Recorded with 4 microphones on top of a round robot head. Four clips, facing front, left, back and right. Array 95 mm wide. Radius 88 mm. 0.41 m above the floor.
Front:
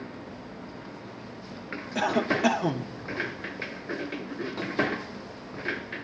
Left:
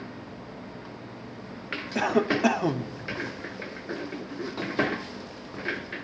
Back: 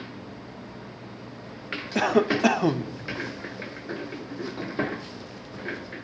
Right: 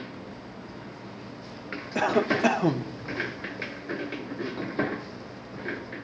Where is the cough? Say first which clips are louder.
Even, back 4 dB; 170° right, 1.4 m.